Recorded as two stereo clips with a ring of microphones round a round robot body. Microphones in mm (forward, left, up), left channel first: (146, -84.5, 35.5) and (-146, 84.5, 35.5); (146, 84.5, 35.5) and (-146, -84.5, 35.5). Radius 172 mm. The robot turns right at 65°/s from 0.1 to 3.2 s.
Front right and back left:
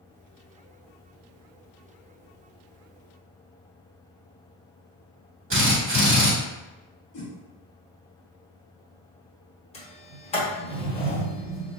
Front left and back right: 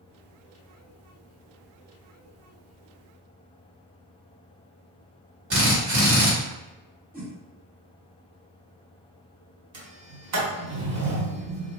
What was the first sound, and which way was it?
A drill, 175° right.